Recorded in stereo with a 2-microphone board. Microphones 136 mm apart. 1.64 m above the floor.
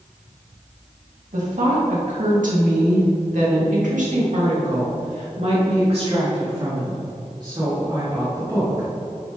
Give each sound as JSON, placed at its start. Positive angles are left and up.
{"t": 1.3, "sound": "a woman speaking", "side_deg": -70, "distance_m": 2.5}